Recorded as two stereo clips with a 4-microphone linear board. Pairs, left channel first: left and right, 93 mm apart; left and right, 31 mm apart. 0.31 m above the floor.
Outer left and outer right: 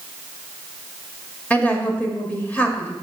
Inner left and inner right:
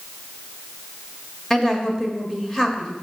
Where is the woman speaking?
15° left (ahead or behind), 0.9 m.